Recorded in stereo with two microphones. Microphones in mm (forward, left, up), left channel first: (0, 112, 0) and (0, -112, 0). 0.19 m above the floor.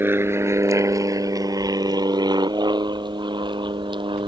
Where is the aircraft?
10° right (ahead or behind); by 4.3 s 20° right (ahead or behind).